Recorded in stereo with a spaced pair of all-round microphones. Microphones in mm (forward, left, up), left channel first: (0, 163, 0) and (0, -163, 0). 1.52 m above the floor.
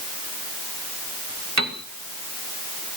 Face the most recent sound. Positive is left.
turn(degrees=-55)  # may be behind; listen again after turning